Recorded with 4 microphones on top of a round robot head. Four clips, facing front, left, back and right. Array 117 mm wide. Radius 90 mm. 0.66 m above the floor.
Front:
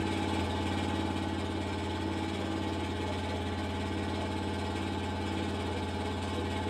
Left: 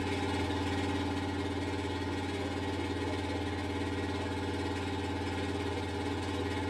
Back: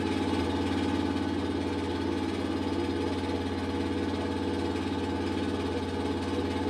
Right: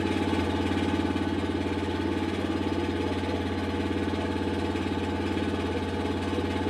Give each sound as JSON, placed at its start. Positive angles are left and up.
{"t": 0.0, "sound": "an engine running", "azimuth_deg": -115, "distance_m": 0.9}